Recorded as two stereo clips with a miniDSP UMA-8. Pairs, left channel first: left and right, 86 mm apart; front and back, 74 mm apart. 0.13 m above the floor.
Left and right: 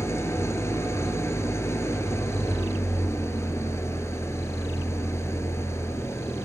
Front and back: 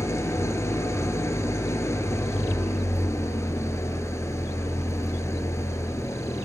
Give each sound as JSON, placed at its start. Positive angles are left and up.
{"t": 0.0, "sound": "an engine running", "azimuth_deg": 40, "distance_m": 0.8}